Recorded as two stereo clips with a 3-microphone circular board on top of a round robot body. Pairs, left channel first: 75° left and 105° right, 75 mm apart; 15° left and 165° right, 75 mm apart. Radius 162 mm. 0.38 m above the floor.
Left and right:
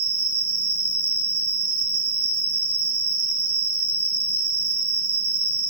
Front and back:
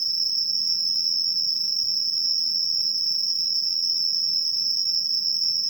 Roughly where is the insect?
Left.